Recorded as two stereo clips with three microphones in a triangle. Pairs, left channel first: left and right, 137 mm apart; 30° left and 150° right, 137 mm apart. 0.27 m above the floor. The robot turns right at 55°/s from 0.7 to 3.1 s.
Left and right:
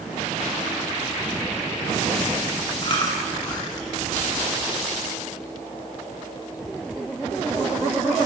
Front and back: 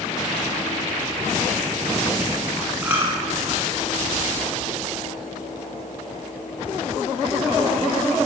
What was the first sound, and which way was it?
Chewing, 130° left.